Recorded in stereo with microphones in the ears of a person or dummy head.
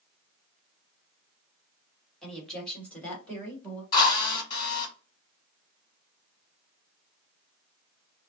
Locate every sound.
2.2 s a woman speaking: 5° left (ahead or behind), 2 m; by 3.8 s 10° left (ahead or behind), 3 m
3.9 s a drill: 25° left (ahead or behind), 1.7 m